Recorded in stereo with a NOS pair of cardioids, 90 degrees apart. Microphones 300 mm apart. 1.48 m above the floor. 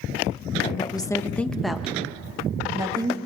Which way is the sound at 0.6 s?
20° left.